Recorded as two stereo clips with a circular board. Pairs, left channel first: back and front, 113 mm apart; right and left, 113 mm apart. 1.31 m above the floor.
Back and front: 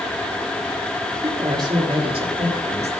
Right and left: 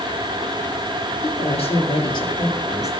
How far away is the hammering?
No hammering in this recording.